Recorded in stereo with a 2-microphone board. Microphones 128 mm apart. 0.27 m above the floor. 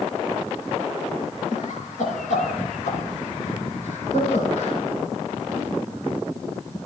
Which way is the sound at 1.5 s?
75° left (ahead or behind).